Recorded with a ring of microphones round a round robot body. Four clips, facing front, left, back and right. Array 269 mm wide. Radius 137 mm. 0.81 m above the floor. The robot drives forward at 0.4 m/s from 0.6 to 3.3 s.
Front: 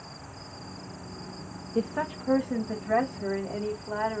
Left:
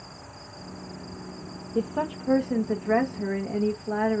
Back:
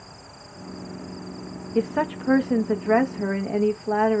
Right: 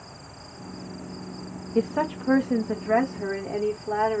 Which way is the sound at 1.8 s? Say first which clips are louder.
Right 3 dB, back 6 dB; 160° right.